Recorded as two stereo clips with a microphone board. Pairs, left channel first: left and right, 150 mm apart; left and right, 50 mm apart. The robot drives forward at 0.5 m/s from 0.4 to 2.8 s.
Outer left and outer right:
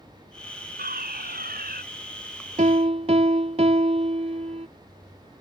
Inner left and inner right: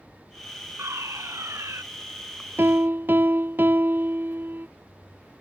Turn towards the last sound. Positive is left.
turn(degrees=-45)  # may be behind; listen again after turning